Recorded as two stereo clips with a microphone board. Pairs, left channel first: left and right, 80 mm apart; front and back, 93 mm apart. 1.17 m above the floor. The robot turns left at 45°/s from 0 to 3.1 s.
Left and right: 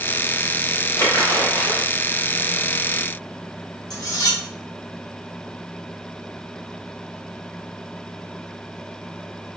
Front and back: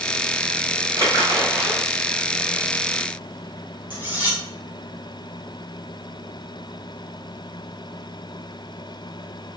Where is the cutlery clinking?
115° left, 0.9 m.